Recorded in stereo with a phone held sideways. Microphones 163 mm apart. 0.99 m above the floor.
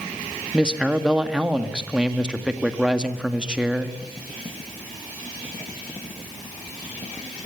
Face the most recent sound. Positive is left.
turn(degrees=-5)  # may be behind; listen again after turning